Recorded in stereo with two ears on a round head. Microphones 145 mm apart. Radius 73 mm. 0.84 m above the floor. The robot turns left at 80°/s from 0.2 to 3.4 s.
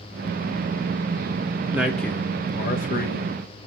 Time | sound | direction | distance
1.7 | a man speaking | 165° right | 1.7 m